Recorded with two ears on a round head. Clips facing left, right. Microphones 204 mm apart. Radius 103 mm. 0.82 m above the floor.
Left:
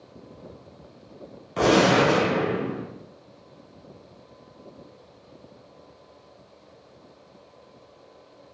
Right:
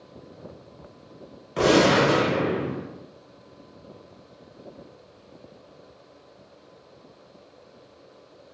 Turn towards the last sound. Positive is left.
turn(degrees=-5)  # may be behind; listen again after turning